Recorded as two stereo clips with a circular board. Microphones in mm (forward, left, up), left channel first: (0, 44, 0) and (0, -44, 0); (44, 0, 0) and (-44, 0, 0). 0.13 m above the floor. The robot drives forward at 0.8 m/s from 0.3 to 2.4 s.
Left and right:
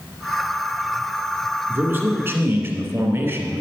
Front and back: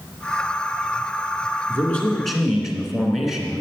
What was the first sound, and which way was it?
A man speaking, 45° right.